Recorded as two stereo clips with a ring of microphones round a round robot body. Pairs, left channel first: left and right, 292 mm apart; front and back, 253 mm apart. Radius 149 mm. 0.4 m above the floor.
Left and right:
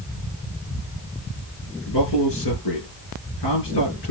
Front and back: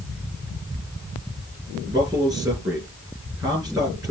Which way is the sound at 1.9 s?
105° left.